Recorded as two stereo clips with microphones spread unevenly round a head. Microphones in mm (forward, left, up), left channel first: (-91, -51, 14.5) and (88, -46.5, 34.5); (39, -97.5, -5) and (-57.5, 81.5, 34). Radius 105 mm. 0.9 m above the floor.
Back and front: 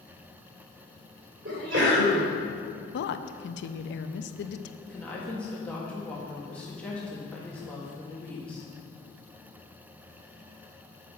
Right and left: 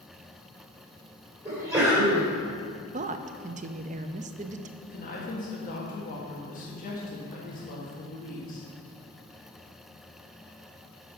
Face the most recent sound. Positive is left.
turn(degrees=-100)